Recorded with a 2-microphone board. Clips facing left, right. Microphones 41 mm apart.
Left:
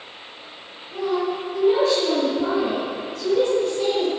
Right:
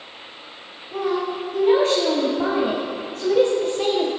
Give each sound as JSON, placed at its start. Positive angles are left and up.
{"t": 0.9, "sound": "a woman speaking", "side_deg": -60, "distance_m": 3.5}